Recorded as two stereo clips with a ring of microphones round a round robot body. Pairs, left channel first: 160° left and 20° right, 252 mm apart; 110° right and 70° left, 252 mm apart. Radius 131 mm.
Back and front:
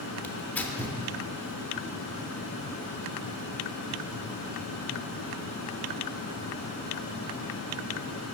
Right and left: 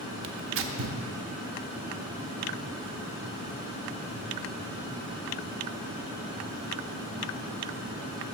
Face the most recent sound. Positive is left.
turn(degrees=75)